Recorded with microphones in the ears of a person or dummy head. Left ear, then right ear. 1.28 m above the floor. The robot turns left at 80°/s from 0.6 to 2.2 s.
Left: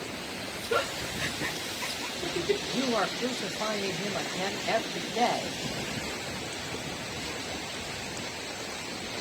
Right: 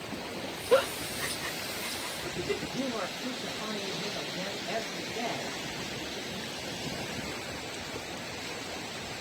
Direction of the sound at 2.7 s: 60° left (ahead or behind).